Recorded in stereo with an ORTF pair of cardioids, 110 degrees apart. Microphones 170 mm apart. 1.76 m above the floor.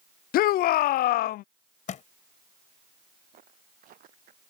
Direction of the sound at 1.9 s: 55° left.